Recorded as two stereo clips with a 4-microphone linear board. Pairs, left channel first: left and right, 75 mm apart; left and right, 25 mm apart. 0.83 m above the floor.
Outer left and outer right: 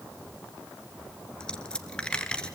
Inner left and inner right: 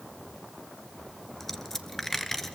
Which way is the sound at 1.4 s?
10° left (ahead or behind).